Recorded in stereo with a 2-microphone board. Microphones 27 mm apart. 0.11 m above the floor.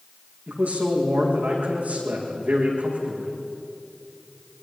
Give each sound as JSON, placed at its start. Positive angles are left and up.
{"t": 0.5, "sound": "a man speaking", "side_deg": -75, "distance_m": 7.0}